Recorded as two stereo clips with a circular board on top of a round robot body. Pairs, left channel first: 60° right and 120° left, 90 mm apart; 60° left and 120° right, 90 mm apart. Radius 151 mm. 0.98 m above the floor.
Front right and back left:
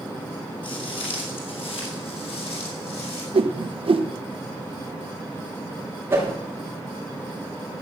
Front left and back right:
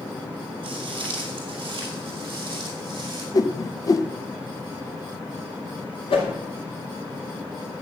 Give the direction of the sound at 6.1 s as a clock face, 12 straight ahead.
10 o'clock.